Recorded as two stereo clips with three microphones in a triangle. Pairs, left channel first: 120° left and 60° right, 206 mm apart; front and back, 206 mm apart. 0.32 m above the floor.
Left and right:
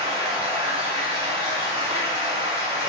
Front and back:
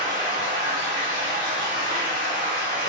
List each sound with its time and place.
0.0 s running water: 175° right, 1.6 m